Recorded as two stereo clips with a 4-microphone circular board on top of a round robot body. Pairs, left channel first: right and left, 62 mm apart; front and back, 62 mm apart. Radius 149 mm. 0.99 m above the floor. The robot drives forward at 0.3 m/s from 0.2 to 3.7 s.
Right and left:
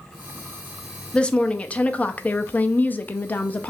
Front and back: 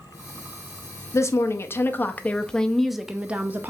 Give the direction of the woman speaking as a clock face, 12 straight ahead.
1 o'clock.